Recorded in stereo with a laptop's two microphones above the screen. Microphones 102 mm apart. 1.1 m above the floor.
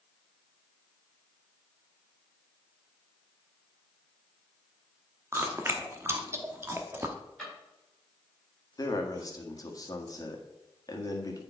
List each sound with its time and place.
5.3 s chewing: 25° right (ahead or behind), 0.8 m
7.4 s a drawer: centre (ahead or behind), 4 m
8.8 s a man speaking: 35° left (ahead or behind), 1.6 m